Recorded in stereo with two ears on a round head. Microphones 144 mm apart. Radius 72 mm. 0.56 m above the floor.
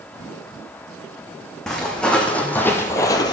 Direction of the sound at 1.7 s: 5° left (ahead or behind).